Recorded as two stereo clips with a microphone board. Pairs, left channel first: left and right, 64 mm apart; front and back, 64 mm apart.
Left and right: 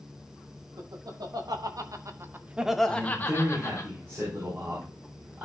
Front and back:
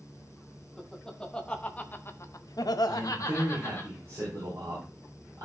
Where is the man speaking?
145° right, 4 m.